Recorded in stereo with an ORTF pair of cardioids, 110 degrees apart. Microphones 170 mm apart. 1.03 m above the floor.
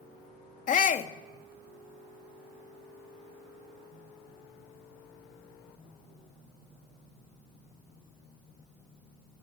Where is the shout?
45° left, 1.7 m.